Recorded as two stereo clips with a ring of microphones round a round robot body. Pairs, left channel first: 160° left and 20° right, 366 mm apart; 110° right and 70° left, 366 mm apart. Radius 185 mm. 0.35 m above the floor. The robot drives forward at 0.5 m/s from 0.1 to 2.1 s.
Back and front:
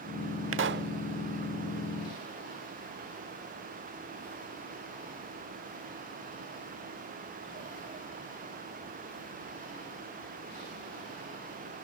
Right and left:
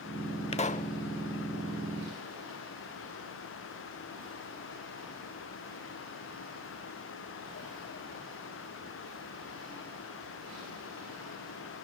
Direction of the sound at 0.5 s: 50° right.